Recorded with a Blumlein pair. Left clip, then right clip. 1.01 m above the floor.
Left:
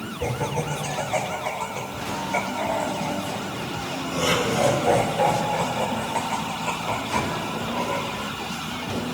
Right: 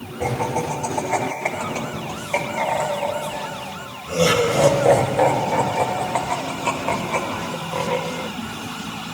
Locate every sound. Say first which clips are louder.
0.2 s laughter: right 5 dB; 30° right, 7.5 m; by 8.3 s 20° right, 3.5 m